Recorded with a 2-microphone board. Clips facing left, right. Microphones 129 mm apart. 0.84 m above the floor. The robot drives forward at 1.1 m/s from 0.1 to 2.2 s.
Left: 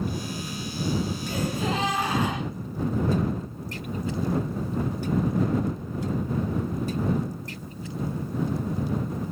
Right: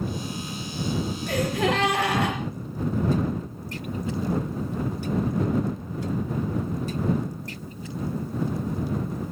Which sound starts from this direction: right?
A gasp, at 1.3 s.